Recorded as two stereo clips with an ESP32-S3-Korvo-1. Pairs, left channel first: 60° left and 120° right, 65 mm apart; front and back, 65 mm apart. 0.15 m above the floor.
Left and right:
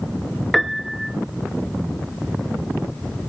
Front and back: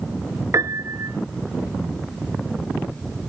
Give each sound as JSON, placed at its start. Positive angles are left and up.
{"t": 0.5, "sound": "a piano", "azimuth_deg": 145, "distance_m": 0.7}